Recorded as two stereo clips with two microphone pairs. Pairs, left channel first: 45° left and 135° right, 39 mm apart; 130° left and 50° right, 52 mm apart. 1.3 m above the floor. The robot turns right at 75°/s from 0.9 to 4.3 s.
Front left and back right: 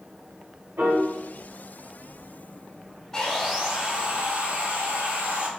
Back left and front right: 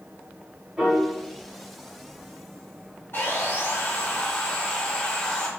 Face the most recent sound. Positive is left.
turn(degrees=-160)